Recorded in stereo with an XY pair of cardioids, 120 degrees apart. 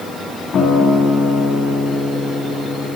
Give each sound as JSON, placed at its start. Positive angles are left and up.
{"t": 0.5, "sound": "a guitar", "azimuth_deg": 60, "distance_m": 2.5}